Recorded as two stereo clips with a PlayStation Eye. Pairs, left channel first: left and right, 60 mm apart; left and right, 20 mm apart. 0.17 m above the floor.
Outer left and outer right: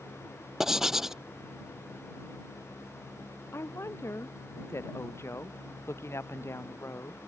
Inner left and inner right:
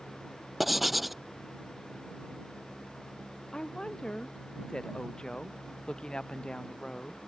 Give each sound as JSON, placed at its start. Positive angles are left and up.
{"t": 0.6, "sound": "writing", "side_deg": -5}
{"t": 3.5, "sound": "a woman speaking", "side_deg": 45}